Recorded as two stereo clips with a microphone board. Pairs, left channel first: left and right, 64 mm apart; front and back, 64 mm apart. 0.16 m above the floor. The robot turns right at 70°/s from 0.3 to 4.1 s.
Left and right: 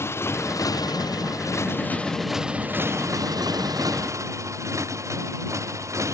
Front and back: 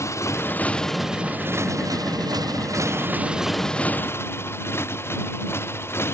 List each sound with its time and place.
0.0 s a motorcycle: 45° left; by 6.1 s 50° right